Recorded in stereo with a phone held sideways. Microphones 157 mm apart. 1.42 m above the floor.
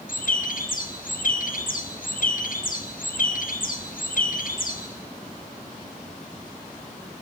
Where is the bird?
65° left (ahead or behind), 2 m.